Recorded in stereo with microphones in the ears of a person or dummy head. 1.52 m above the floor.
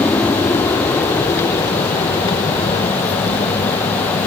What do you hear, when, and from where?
0.0 s an aircraft: 10° left (ahead or behind); by 4.3 s 30° left (ahead or behind)